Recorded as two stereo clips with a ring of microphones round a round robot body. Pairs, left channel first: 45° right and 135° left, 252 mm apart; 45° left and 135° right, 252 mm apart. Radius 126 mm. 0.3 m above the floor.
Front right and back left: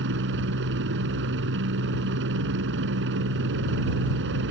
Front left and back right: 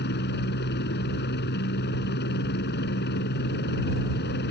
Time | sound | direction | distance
0.0 | a helicopter | 95° left | ?